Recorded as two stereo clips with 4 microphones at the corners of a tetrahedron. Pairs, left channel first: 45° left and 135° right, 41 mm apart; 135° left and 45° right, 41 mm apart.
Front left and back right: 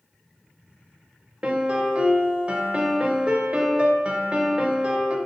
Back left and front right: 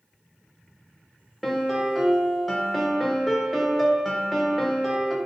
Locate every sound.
1.4 s a piano: 140° right, 0.6 m